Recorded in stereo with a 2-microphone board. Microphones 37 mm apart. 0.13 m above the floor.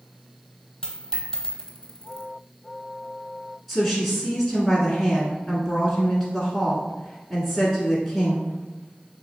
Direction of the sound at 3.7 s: Centre (ahead or behind).